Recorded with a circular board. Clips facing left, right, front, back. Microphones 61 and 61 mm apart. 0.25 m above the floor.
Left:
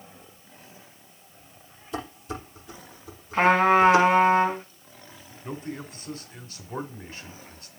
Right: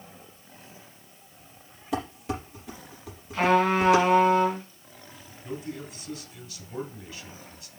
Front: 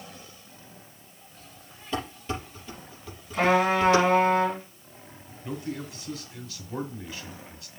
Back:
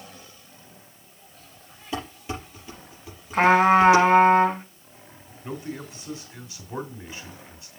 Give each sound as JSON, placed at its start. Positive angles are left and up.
{"t": 1.9, "sound": "dishes clattering", "azimuth_deg": -100, "distance_m": 5.0}
{"t": 3.3, "sound": "a trumpet", "azimuth_deg": 145, "distance_m": 1.8}
{"t": 5.4, "sound": "a man speaking", "azimuth_deg": 120, "distance_m": 2.0}